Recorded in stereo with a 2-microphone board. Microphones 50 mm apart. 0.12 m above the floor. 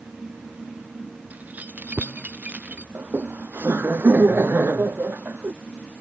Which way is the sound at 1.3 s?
35° right (ahead or behind).